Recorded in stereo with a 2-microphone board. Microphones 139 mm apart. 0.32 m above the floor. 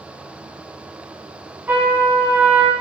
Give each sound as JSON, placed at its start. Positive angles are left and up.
{"t": 1.7, "sound": "a trumpet", "side_deg": -10, "distance_m": 0.7}